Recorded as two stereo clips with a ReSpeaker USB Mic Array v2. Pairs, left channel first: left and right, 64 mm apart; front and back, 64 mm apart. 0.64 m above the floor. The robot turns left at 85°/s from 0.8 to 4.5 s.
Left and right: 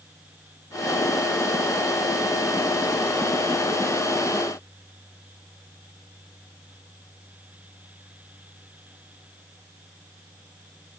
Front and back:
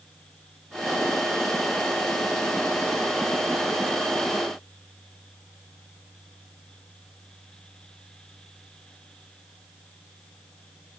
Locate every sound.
Only background noise.